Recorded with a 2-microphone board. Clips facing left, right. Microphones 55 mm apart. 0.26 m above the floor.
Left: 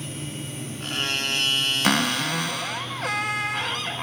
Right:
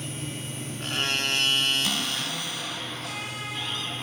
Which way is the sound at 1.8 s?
65° left (ahead or behind).